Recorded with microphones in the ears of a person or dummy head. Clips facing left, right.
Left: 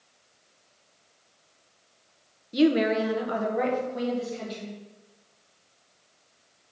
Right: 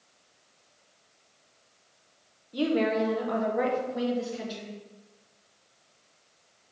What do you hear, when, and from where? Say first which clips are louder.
2.5 s a woman speaking: left 4 dB; 25° left (ahead or behind), 0.9 m; by 4.8 s 15° right (ahead or behind), 1.8 m